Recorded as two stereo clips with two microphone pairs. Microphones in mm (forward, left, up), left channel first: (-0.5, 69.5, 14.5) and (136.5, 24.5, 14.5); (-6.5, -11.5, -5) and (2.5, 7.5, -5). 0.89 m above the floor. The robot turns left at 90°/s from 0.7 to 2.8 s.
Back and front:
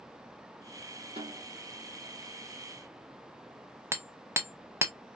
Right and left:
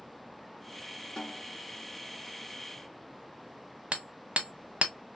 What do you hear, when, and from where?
1.2 s a snare drum: 60° right, 1.3 m; by 1.6 s 95° right, 1.3 m
3.9 s hammering: 50° left, 0.7 m